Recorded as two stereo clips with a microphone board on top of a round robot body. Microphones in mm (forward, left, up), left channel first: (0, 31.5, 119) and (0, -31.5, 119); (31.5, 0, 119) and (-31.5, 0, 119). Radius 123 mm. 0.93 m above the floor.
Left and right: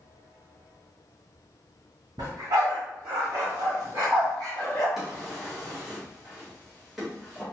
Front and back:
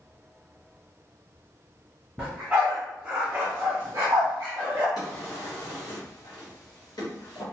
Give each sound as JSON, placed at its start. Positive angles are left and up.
{"t": 2.2, "sound": "a dog barking", "azimuth_deg": -100, "distance_m": 1.3}
{"t": 5.0, "sound": "a drawer", "azimuth_deg": 0, "distance_m": 1.0}